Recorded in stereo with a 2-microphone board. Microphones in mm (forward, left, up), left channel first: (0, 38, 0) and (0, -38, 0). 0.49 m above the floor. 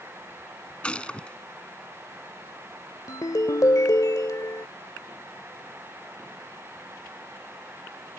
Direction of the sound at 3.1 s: 50° left (ahead or behind).